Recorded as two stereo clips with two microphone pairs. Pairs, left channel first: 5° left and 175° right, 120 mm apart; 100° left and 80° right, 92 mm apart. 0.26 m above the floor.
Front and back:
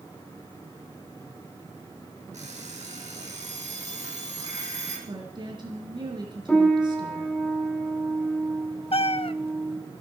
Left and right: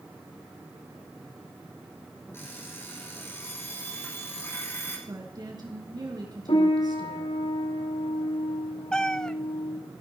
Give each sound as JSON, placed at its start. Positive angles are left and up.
{"t": 2.3, "sound": "an alarm clock", "azimuth_deg": 165, "distance_m": 5.5}
{"t": 5.1, "sound": "a woman speaking", "azimuth_deg": -120, "distance_m": 3.5}
{"t": 6.5, "sound": "a piano", "azimuth_deg": 95, "distance_m": 9.5}
{"t": 8.9, "sound": "a cat meowing", "azimuth_deg": 20, "distance_m": 0.6}